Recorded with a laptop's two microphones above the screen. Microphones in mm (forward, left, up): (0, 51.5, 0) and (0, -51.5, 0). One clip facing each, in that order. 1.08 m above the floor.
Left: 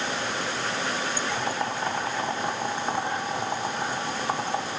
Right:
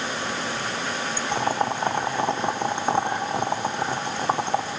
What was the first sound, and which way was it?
Boiling, 25° right (ahead or behind).